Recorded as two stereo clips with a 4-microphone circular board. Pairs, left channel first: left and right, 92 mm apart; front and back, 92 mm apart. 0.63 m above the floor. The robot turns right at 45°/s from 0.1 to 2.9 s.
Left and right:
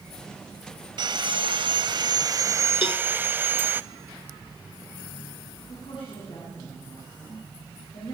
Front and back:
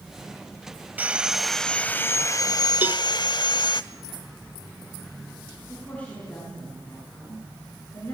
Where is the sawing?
110° right, 0.6 m; by 3.8 s 25° right, 0.6 m.